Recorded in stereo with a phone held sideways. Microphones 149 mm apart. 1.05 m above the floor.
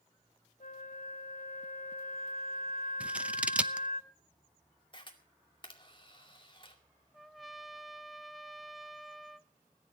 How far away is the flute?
About 1.3 m.